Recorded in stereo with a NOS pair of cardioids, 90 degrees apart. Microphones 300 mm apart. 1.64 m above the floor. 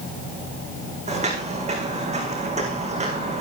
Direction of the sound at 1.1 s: 25° right.